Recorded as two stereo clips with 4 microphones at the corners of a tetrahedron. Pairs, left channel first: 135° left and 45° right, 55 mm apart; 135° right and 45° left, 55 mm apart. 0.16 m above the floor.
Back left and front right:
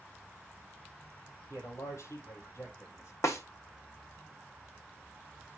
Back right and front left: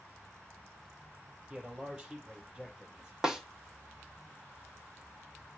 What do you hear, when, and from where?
1.5 s a man speaking: 120° left, 4 m
3.2 s a snare drum: 125° left, 1.5 m